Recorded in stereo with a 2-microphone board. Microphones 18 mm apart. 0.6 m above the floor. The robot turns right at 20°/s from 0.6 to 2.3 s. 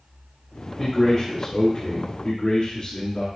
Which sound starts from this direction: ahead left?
A man speaking, at 0.8 s.